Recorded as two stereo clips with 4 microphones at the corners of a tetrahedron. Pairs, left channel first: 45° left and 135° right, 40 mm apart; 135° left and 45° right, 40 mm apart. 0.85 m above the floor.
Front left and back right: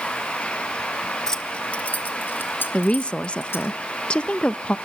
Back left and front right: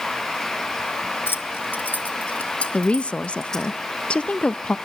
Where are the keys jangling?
125° left, 1.3 m; by 3.7 s 65° left, 3 m.